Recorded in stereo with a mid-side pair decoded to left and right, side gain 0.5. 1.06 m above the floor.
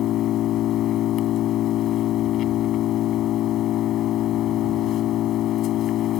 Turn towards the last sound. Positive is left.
turn(degrees=65)